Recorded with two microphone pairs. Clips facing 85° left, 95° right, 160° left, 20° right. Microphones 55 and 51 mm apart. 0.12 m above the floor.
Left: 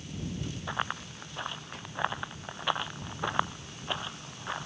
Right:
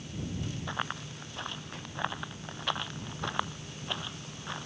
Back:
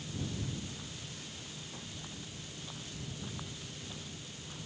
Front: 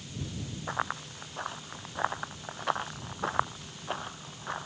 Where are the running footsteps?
5° left; by 4.7 s 15° left.